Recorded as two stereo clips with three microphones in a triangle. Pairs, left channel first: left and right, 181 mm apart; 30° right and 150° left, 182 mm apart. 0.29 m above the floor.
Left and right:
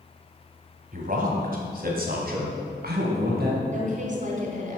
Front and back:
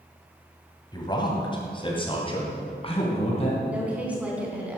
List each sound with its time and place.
0.9 s a man speaking: 90° right, 2.5 m; by 3.6 s 80° right, 3.5 m
3.7 s a woman speaking: 130° right, 3 m